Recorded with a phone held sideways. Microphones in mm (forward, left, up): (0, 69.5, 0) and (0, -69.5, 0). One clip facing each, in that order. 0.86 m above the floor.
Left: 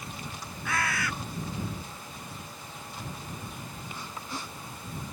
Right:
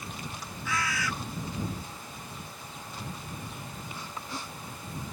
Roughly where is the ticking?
No ticking in this recording.